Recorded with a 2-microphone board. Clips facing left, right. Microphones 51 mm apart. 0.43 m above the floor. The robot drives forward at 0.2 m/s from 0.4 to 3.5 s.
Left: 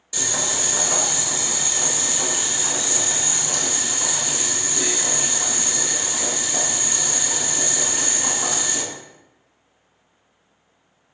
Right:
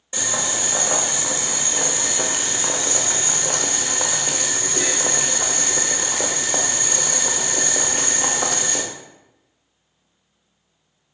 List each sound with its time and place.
0.1 s boiling: 30° right (ahead or behind), 0.8 m; by 8.8 s 55° right (ahead or behind), 0.5 m